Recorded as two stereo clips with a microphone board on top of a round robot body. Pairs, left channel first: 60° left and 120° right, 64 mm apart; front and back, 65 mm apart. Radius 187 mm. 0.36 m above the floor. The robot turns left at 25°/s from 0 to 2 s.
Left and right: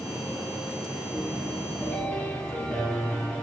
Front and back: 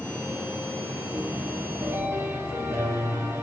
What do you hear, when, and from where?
1.1 s a piano: 155° left, 7 m; by 3.4 s 135° left, 7 m